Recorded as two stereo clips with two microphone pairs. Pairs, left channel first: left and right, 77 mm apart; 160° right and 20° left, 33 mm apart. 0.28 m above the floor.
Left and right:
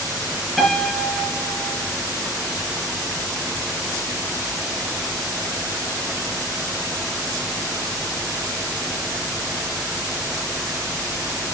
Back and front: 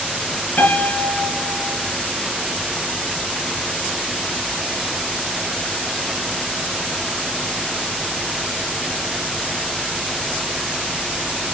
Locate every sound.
0.6 s a piano: straight behind, 4.5 m